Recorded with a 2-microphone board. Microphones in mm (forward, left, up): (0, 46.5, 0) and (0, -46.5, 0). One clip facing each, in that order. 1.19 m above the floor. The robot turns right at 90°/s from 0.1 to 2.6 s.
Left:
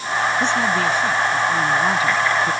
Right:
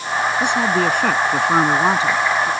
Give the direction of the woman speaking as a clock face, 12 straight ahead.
6 o'clock.